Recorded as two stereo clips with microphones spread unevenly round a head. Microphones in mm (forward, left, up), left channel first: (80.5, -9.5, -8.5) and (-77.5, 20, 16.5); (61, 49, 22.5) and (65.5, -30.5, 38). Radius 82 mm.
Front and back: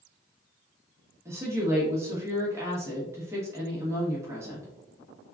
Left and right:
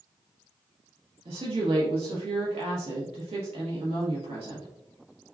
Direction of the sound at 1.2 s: 115° right.